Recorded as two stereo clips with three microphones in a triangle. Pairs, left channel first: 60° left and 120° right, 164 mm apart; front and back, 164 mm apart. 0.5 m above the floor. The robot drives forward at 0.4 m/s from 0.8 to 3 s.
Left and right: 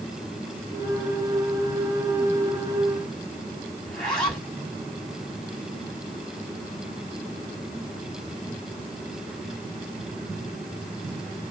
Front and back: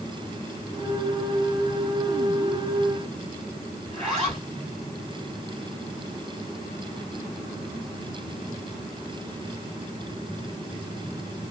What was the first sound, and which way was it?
A zipper, 145° left.